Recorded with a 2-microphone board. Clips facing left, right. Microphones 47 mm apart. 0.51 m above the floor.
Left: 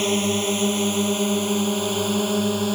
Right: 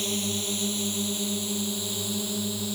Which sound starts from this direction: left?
A drone, at 0.0 s.